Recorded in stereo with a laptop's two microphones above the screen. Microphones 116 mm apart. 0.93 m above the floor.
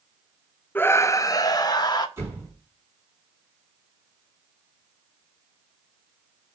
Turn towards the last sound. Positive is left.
turn(degrees=-20)  # may be behind; listen again after turning